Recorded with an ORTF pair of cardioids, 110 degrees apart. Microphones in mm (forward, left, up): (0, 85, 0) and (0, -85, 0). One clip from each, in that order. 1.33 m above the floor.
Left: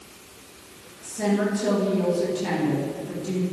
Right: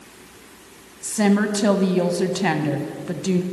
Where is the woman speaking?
70° right, 1.0 m.